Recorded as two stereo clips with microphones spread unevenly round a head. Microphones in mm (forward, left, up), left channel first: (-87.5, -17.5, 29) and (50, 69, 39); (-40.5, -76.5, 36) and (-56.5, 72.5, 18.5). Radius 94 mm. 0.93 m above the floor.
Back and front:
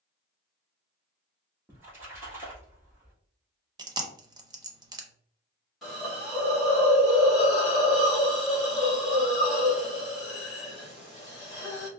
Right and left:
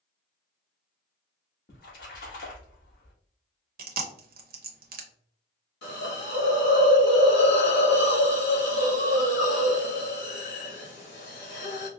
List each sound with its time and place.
1.7 s a splash: 45° right, 1.3 m
3.8 s chewing: 100° left, 0.8 m
5.8 s a hiss: 60° right, 1.5 m